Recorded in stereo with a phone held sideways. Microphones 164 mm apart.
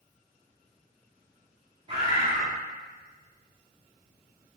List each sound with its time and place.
1.9 s a bird: 35° right (ahead or behind), 1.3 m